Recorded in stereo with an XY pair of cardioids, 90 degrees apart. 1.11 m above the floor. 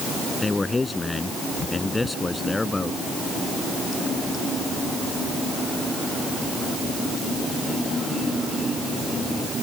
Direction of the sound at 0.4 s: 25° left.